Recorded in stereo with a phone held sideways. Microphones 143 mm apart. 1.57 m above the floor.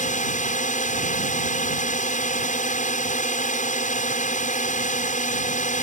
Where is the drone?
60° left (ahead or behind).